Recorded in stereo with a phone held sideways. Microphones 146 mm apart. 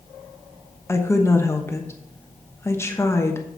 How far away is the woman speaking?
About 1.0 m.